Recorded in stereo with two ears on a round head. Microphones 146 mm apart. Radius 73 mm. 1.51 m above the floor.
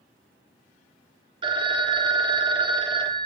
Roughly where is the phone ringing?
Right.